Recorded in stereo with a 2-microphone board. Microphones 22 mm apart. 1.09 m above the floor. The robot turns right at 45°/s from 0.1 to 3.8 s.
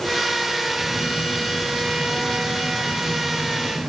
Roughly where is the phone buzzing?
Behind left.